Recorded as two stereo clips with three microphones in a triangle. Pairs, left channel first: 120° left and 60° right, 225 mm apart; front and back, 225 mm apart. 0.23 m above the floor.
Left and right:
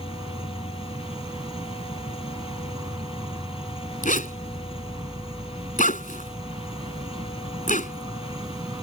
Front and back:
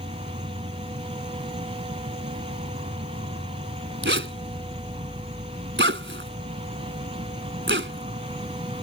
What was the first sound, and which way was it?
An insect, 130° right.